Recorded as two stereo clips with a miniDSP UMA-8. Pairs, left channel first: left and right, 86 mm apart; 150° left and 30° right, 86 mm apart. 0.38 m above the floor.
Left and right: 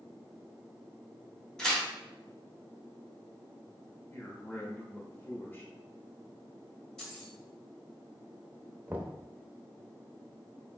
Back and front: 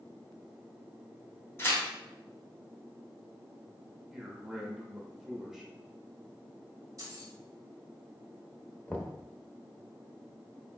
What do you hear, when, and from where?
1.6 s tearing paper: 165° left, 1.0 m
4.1 s a man speaking: 50° left, 0.9 m
7.0 s keys jangling: 5° left, 1.3 m
8.9 s knocking: 145° right, 0.6 m